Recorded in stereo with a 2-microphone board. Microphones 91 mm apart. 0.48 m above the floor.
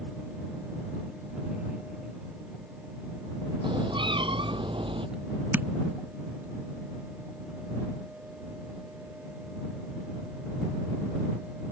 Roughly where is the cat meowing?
Right.